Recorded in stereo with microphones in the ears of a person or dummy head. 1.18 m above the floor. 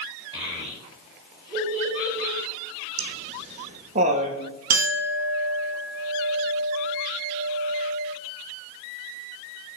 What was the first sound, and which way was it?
A child speaking, 25° right (ahead or behind).